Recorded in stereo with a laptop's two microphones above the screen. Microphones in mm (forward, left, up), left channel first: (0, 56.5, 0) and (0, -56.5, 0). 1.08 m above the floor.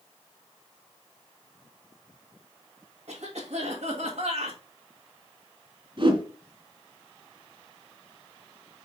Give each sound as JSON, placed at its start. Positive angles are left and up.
{"t": 3.1, "sound": "a cough", "side_deg": -70, "distance_m": 2.0}
{"t": 6.0, "sound": "a whoosh", "side_deg": -45, "distance_m": 2.5}